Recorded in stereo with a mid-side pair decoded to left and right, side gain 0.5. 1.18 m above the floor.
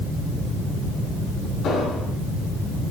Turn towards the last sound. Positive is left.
turn(degrees=65)